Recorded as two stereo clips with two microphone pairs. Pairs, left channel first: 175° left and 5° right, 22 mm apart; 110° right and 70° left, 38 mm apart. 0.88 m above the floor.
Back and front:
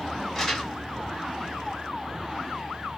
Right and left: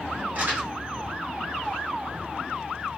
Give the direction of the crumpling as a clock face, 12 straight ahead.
9 o'clock.